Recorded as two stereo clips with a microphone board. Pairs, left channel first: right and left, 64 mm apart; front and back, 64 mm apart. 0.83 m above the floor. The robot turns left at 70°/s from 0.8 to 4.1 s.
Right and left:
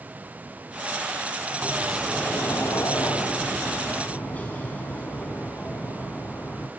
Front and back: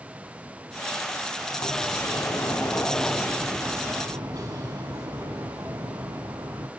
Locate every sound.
1.6 s a sliding door: 20° left, 4 m; by 6.7 s 155° right, 4 m